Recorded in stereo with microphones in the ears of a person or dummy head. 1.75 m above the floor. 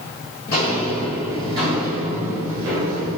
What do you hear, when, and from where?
0.5 s footsteps: 20° left (ahead or behind), 1.8 m; by 3.2 s 55° right (ahead or behind), 3 m